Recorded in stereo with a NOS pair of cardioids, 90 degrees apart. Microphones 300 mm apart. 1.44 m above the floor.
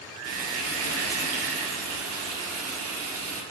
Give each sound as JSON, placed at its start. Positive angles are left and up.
{"t": 0.2, "sound": "frying", "azimuth_deg": -55, "distance_m": 1.1}